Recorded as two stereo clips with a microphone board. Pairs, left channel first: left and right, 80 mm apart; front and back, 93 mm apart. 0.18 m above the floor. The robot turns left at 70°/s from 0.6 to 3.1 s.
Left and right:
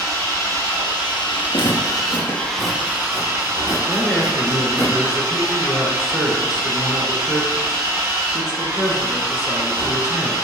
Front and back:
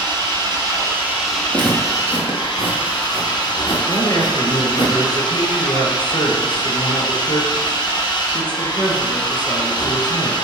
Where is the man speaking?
10° right, 2.5 m.